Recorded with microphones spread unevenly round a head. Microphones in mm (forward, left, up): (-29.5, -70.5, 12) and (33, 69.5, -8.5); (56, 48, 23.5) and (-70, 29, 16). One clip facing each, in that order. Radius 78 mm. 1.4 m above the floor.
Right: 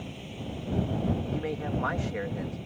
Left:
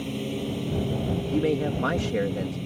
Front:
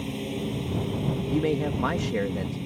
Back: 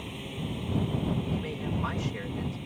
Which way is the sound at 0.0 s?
55° left.